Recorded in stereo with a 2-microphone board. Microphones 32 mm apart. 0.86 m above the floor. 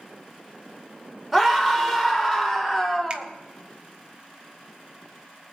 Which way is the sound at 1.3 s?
5° right (ahead or behind).